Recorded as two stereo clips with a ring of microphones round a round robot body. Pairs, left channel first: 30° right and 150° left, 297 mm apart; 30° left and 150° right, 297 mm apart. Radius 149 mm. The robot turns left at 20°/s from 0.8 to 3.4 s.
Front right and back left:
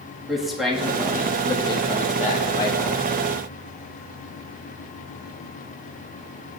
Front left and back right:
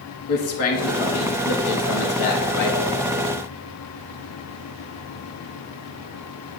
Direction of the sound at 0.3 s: 60° left.